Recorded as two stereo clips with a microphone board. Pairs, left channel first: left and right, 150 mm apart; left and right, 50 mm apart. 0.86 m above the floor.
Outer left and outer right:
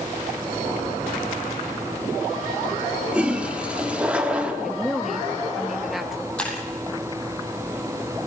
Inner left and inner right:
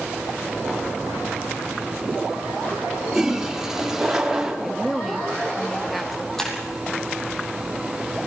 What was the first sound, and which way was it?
A toilet flushing, 5° right (ahead or behind).